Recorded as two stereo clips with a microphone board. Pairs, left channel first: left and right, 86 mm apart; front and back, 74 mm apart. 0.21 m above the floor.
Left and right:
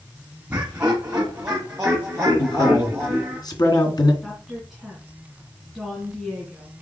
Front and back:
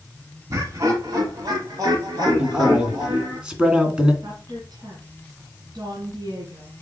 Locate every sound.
0.5 s laughter: 155° right, 1.5 m; by 3.4 s 175° right, 3.5 m
2.4 s a man speaking: 105° left, 2 m
4.2 s a woman speaking: straight behind, 2.5 m